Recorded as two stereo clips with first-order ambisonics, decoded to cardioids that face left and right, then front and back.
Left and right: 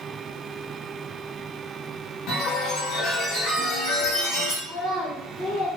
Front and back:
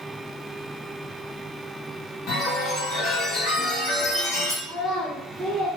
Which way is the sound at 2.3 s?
50° left.